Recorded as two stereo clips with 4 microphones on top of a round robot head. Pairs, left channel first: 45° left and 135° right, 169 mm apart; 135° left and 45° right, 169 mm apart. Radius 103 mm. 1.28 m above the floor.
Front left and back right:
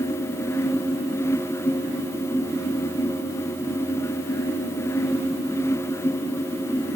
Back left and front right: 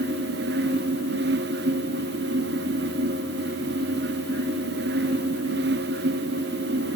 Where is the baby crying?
No baby crying in this recording.